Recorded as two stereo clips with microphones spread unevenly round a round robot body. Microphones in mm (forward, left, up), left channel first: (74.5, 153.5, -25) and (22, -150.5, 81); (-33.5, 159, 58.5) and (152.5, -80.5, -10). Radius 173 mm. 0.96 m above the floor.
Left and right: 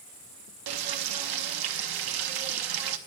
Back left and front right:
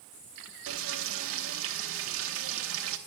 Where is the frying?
105° right, 0.8 m.